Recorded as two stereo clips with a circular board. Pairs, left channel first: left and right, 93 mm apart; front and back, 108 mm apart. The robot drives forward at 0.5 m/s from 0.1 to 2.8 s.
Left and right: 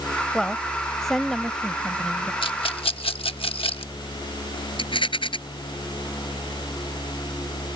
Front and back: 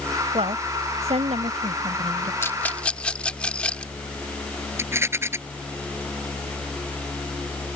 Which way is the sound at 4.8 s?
115° left.